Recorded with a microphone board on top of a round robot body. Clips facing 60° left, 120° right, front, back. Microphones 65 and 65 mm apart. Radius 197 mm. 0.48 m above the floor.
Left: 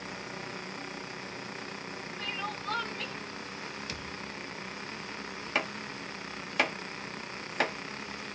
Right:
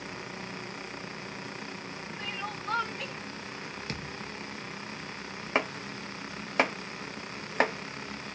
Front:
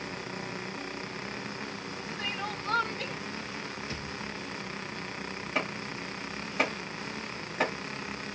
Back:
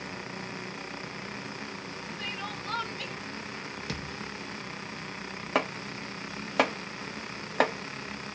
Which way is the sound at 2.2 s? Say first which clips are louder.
Left 1 dB, front 3 dB; 50° right.